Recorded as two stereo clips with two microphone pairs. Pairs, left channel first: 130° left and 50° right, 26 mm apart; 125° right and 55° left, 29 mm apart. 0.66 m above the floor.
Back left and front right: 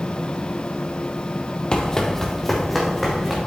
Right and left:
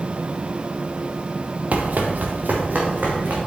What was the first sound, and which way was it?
Running footsteps, 75° left.